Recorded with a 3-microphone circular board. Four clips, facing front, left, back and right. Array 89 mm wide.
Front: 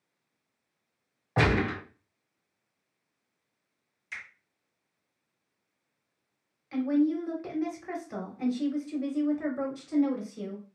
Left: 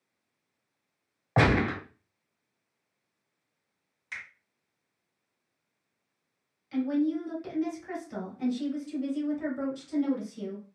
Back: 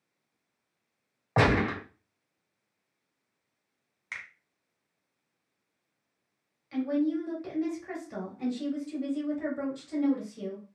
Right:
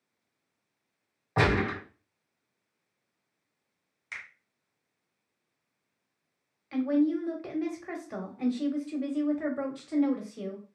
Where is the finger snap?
170° right, 1.7 m.